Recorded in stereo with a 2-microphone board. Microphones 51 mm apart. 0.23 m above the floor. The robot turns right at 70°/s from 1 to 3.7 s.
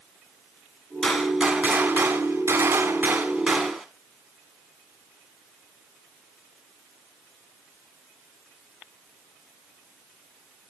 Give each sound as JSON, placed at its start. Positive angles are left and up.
{"t": 1.0, "sound": "a gunshot", "azimuth_deg": 170, "distance_m": 0.9}